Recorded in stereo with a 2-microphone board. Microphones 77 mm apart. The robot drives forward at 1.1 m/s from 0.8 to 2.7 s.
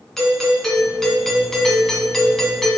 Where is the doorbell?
5° left (ahead or behind), 2 m.